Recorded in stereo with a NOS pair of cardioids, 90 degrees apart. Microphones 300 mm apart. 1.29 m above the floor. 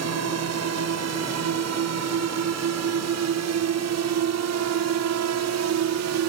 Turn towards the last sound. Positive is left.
turn(degrees=-70)